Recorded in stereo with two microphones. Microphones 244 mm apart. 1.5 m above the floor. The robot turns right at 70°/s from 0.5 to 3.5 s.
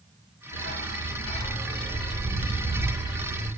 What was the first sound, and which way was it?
A dog barking, 80° left.